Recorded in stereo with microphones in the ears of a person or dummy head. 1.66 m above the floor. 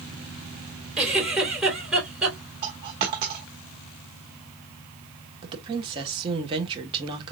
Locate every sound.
1.0 s a giggle: centre (ahead or behind), 4.5 m
2.6 s a dropped coin: 25° right (ahead or behind), 1.0 m
5.4 s a woman speaking: 25° right (ahead or behind), 1.5 m